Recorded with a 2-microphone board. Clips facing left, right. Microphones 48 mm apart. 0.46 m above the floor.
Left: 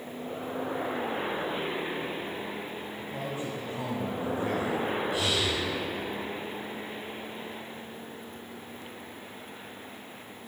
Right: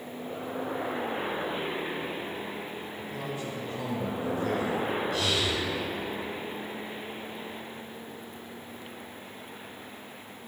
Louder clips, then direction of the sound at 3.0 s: Left 1 dB; 25° left (ahead or behind).